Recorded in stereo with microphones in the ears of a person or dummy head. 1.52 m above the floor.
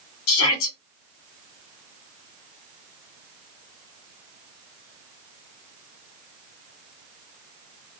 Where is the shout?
85° left, 1.9 m.